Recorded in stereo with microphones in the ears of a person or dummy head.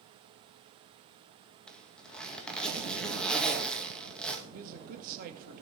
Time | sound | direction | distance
1.7 | a zipper | 5° left (ahead or behind) | 2.5 m
4.5 | a man speaking | 50° right (ahead or behind) | 2.5 m